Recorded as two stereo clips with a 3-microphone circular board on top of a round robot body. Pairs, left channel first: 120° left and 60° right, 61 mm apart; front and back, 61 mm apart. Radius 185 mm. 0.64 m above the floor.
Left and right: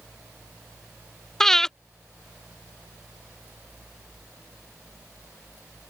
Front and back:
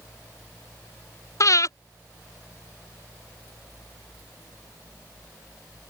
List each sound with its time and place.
1.4 s breathing: 35° left